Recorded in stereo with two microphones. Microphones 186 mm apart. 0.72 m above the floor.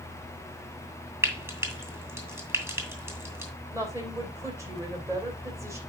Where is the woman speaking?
15° right (ahead or behind), 2.5 m.